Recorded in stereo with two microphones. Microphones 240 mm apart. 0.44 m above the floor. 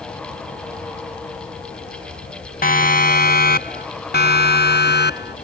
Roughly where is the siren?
Left.